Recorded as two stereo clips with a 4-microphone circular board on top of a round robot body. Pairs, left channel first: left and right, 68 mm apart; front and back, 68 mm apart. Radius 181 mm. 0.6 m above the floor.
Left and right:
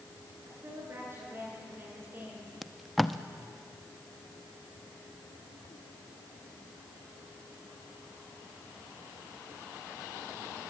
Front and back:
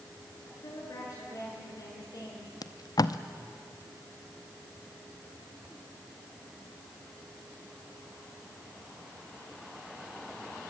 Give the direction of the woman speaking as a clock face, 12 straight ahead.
1 o'clock.